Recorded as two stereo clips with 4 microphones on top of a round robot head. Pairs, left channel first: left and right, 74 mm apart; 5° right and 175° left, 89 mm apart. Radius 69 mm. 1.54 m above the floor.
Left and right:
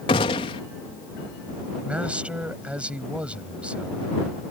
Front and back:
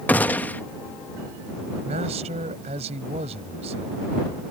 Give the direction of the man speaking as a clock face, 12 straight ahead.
5 o'clock.